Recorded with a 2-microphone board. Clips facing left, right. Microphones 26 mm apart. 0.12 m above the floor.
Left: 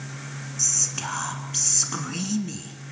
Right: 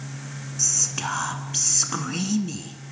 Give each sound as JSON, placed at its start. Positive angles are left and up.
{"t": 0.6, "sound": "whispering", "side_deg": -15, "distance_m": 1.4}